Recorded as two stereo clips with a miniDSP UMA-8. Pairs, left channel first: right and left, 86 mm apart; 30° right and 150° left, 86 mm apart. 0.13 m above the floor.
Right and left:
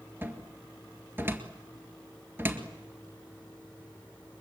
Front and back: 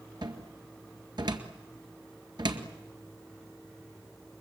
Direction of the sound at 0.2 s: 150° left.